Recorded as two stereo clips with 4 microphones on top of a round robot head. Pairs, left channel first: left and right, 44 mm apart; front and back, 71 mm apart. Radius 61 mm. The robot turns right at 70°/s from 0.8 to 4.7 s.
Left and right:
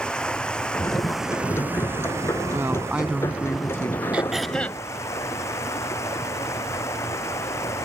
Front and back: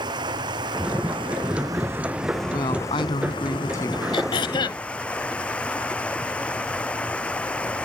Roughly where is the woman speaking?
Ahead right.